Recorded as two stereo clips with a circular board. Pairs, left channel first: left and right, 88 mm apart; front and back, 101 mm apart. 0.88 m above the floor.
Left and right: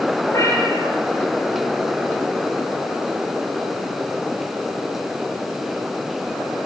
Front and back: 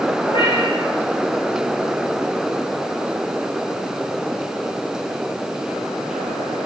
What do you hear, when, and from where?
0.2 s a cat meowing: 35° left, 7.5 m